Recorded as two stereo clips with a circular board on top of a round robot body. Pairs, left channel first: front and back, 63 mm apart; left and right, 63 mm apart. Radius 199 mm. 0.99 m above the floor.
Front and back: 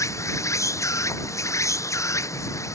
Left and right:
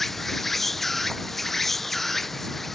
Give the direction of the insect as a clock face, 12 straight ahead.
12 o'clock.